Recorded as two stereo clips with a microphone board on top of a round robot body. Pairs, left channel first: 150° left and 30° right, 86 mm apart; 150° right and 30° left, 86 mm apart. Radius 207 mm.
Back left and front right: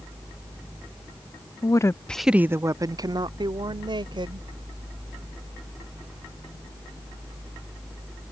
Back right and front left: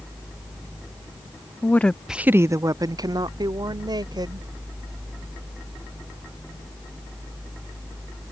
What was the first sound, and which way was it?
A woman speaking, 155° left.